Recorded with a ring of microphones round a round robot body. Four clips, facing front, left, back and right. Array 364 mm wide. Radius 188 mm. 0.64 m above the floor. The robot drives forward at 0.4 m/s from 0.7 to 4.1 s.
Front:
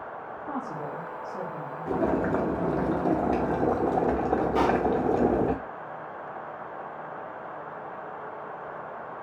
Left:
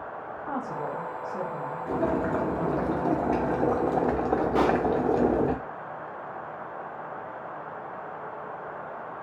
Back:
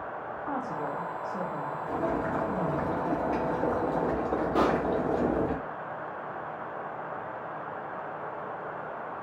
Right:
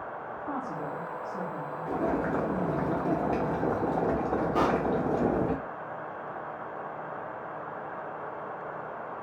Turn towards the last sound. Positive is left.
turn(degrees=130)